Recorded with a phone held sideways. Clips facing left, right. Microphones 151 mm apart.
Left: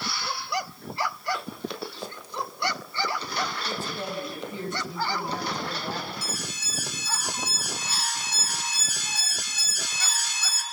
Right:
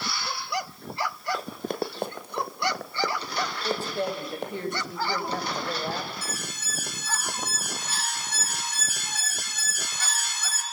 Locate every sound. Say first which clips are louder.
1.3 s running footsteps: right 3 dB; 35° right (ahead or behind), 2 m; by 4.5 s 55° right (ahead or behind), 5 m
3.6 s a woman speaking: right 4 dB; 65° right (ahead or behind), 7.5 m
6.2 s an alarm: left 1 dB; 55° right (ahead or behind), 6 m